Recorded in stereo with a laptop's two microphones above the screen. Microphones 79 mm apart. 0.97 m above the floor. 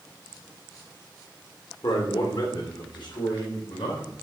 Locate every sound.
1.8 s a man speaking: 60° left (ahead or behind), 2.5 m; by 4.1 s 80° left, 4 m